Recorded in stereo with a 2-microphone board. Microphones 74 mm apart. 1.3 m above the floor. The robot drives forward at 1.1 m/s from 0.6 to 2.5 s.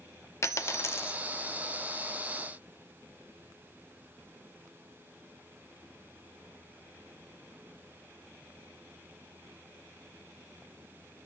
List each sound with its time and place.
0.4 s a dropped coin: 40° left (ahead or behind), 0.9 m; by 1.2 s 30° left (ahead or behind), 1.1 m